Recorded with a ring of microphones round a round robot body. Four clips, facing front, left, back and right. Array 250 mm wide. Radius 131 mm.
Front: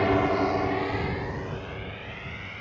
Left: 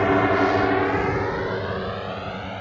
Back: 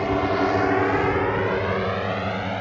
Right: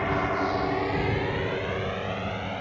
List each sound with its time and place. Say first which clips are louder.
0.0 s a drone: left 8 dB, back 2 dB; 75° left; by 2.6 s straight behind